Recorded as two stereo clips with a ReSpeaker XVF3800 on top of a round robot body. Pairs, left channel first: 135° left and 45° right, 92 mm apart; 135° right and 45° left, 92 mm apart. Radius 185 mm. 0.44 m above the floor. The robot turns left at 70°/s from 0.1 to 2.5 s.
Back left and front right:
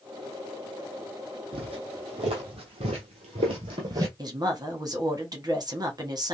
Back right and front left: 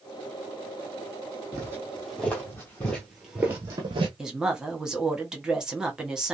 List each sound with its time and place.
1.5 s footsteps: 15° right, 1.5 m; by 4.1 s 10° left, 0.7 m
4.2 s a woman speaking: 35° right, 1.5 m